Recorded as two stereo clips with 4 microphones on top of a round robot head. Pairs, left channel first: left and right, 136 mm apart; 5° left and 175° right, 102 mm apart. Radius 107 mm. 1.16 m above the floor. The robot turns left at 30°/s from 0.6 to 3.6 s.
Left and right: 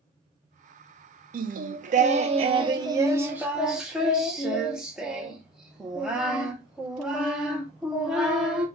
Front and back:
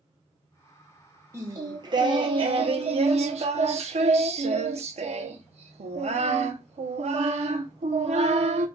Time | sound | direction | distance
1.3 | singing | 110° right | 0.7 m